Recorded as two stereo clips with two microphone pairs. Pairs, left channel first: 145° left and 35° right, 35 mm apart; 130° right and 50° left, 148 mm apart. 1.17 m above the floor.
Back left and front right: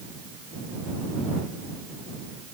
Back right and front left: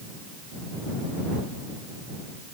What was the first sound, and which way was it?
Only background noise.